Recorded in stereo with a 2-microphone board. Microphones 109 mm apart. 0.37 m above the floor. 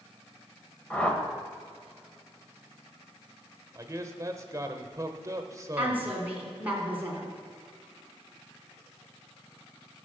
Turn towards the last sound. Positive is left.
turn(degrees=-15)  # may be behind; listen again after turning